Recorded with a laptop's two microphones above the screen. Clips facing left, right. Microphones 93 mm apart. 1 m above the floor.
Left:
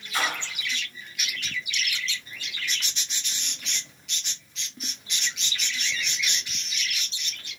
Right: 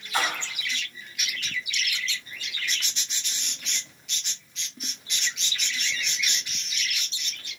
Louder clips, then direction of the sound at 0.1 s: Right 1 dB; 55° right (ahead or behind).